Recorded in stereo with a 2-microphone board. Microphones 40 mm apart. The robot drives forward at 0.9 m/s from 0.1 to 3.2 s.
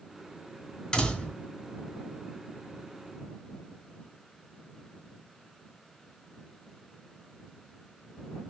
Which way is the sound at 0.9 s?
20° left (ahead or behind).